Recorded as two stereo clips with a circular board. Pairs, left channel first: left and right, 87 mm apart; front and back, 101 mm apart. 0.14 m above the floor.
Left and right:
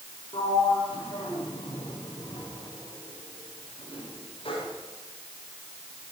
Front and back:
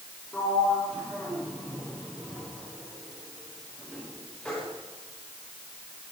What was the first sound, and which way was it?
A sliding door, 80° left.